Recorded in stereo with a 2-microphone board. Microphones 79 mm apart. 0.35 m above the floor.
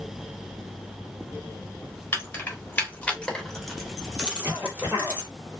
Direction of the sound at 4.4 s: 20° right (ahead or behind).